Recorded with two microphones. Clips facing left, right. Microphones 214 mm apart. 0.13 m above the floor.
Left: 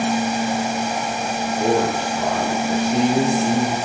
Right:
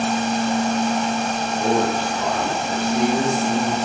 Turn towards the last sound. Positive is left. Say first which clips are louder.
# left 1 dB
turn(degrees=25)  # may be behind; listen again after turning